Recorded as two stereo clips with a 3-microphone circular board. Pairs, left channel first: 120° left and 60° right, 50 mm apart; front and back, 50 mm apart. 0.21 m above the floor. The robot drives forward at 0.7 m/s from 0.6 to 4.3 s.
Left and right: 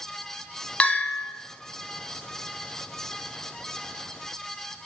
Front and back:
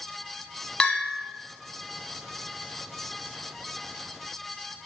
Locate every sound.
0.8 s a bell: 65° left, 0.5 m; by 1.2 s 110° left, 0.5 m